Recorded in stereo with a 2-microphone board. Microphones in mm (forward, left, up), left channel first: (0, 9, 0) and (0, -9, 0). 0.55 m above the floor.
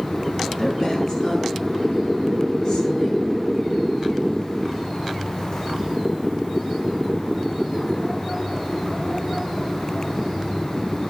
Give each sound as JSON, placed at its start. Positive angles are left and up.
{"t": 0.4, "sound": "a woman speaking", "side_deg": 20, "distance_m": 6.5}